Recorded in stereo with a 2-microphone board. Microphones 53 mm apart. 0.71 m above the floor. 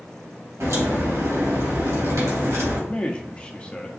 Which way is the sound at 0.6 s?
80° right.